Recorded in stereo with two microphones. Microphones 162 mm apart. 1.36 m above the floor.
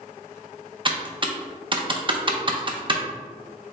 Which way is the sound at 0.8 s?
30° right (ahead or behind).